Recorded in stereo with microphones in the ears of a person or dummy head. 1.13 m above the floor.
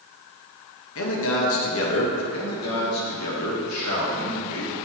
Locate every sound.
0.9 s a man speaking: 65° left (ahead or behind), 1.6 m
2.3 s a man speaking: 80° left, 2.5 m